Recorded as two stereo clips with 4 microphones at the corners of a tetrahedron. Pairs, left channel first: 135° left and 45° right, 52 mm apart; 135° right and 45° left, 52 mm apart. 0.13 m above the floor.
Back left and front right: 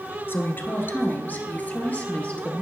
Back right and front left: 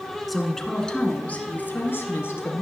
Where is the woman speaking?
135° left, 1.4 m; by 2.6 s 160° right, 2 m.